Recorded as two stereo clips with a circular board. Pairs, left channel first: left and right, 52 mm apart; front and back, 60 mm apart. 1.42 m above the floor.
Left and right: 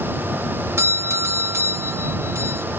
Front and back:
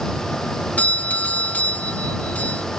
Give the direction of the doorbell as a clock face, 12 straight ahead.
2 o'clock.